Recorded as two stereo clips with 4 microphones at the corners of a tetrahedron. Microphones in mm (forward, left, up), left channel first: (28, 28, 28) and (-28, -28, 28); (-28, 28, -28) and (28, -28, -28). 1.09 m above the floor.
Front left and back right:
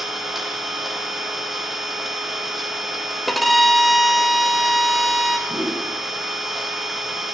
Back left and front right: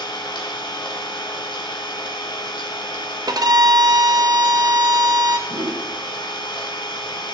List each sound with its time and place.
0.0 s an engine running: 140° left, 1.8 m
3.3 s a violin: 45° right, 0.8 m
5.5 s a whoosh: 55° right, 4.5 m